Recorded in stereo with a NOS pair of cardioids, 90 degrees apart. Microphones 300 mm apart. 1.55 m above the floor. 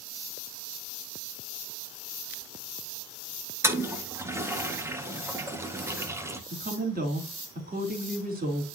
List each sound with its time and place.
3.6 s a toilet flushing: 10° right, 1.6 m
6.5 s a woman speaking: 30° right, 3.5 m